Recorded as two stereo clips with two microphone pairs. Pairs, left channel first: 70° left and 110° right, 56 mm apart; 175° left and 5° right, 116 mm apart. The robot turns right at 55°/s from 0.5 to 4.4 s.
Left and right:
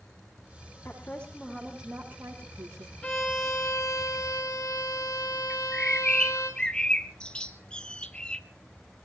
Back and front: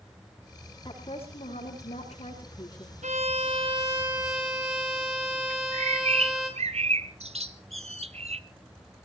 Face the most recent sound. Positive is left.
turn(degrees=0)